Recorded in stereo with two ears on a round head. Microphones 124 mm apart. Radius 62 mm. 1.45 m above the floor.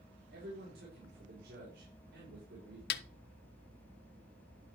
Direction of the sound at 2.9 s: 75° left (ahead or behind).